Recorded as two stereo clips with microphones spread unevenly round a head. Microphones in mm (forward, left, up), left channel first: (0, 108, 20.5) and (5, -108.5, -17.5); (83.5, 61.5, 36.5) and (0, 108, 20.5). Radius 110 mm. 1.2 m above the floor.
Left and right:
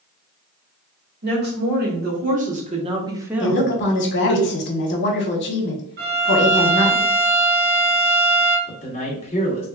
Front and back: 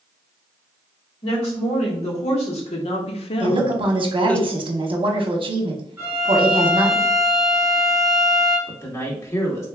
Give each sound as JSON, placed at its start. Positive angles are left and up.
{"t": 1.2, "sound": "a woman speaking", "azimuth_deg": -50, "distance_m": 1.7}
{"t": 3.4, "sound": "a woman speaking", "azimuth_deg": 135, "distance_m": 0.9}
{"t": 6.0, "sound": "a violin", "azimuth_deg": -135, "distance_m": 0.7}
{"t": 8.7, "sound": "a man speaking", "azimuth_deg": 30, "distance_m": 2.0}